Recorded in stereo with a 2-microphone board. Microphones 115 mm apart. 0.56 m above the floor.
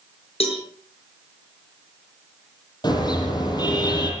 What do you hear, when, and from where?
0.4 s a cowbell: 60° left (ahead or behind), 6 m
2.8 s a car horn: 40° left (ahead or behind), 9.5 m